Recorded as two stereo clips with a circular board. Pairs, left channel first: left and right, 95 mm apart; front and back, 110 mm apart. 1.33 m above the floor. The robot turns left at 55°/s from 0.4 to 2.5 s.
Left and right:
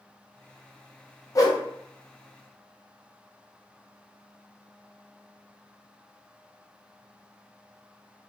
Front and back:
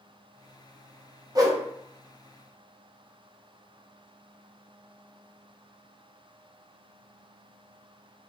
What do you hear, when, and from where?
1.4 s a whoosh: 135° left, 0.5 m; by 1.6 s 120° left, 0.5 m